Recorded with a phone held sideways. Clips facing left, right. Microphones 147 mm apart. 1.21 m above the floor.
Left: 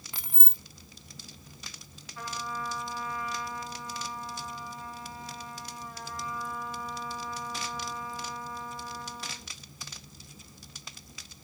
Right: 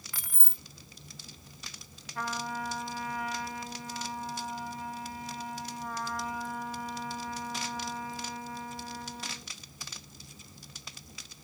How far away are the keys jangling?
About 0.5 m.